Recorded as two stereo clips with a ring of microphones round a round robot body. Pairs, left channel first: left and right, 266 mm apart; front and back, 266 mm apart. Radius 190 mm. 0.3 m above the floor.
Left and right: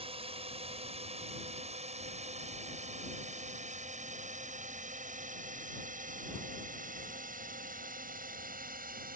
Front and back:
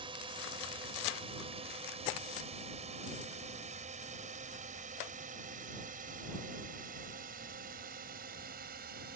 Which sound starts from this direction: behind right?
A drone, at 0.0 s.